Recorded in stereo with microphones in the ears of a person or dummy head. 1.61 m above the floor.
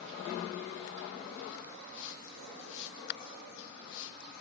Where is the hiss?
70° left (ahead or behind), 1.7 m.